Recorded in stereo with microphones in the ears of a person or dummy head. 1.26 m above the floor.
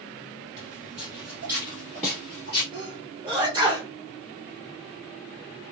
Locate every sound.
0.6 s footsteps: 30° right (ahead or behind), 1.4 m; by 2.6 s 10° left (ahead or behind), 1.7 m
2.7 s a sneeze: 15° right (ahead or behind), 1.3 m